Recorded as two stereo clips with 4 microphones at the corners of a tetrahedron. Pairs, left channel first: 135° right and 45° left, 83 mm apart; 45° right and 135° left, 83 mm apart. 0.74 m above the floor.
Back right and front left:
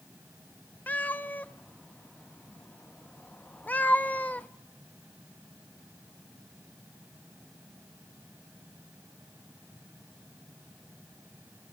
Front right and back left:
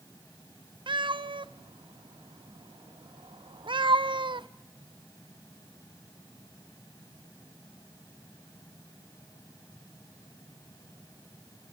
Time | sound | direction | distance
0.9 | a cat meowing | 150° left | 0.5 m